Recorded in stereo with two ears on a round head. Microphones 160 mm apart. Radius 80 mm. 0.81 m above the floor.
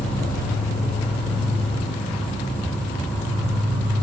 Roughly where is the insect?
Centre.